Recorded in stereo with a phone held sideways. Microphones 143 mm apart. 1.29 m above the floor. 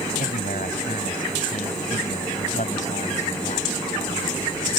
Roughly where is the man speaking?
Left.